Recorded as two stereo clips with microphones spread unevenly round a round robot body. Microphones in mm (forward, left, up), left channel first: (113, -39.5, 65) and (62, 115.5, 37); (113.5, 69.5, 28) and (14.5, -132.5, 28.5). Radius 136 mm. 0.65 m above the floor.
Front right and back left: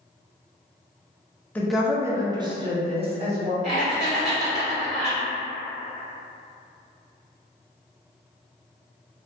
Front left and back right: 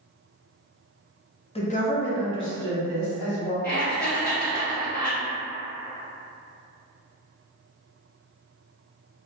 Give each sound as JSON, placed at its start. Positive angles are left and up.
{"t": 1.6, "sound": "a woman speaking", "azimuth_deg": 20, "distance_m": 0.6}
{"t": 3.6, "sound": "laughter", "azimuth_deg": 20, "distance_m": 1.7}